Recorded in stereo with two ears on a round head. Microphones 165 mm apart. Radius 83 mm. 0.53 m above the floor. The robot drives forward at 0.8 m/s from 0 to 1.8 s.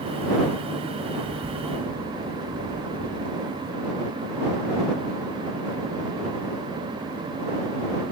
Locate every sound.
1.2 s a bird: 60° right (ahead or behind); by 3.7 s 55° right (ahead or behind)